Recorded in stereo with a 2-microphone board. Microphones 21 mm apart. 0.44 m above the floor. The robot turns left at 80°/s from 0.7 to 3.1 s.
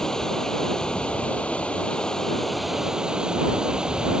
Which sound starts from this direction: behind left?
Running water, at 0.0 s.